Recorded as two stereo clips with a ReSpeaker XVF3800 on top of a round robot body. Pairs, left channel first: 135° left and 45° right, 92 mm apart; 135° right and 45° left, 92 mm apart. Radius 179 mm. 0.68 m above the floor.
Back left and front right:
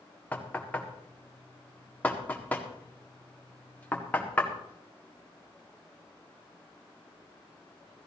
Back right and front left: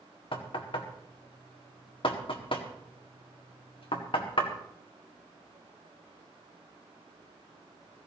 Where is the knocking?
150° right, 1.8 m.